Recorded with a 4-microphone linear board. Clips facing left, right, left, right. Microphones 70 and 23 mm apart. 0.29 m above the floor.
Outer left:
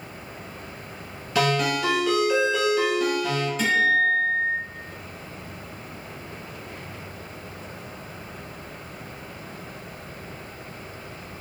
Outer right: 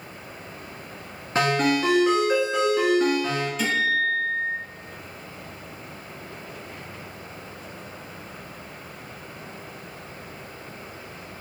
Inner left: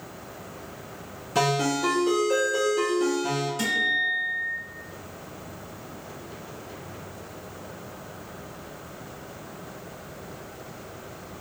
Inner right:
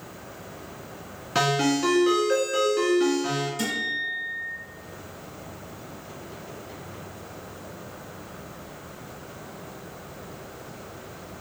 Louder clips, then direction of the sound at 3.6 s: Outer left 4 dB, inner left 4 dB; 5° right (ahead or behind).